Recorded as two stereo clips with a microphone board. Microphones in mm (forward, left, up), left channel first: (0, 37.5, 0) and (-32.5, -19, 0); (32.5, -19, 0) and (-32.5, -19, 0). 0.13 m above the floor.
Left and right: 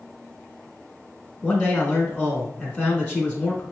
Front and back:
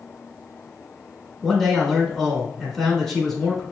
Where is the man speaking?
70° left, 1.1 m.